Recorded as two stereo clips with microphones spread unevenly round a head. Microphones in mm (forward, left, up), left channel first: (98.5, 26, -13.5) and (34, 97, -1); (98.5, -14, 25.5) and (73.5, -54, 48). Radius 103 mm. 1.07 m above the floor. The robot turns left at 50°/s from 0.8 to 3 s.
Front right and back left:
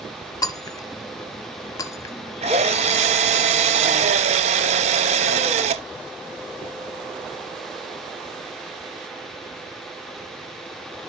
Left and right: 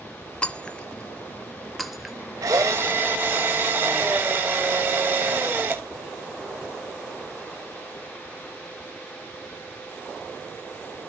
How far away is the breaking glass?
About 1.1 m.